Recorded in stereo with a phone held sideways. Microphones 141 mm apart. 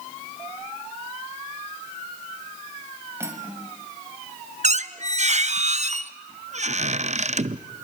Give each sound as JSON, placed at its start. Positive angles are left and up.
{"t": 3.2, "sound": "cutlery clinking", "side_deg": -20, "distance_m": 2.5}
{"t": 4.6, "sound": "a squeak", "side_deg": -55, "distance_m": 0.6}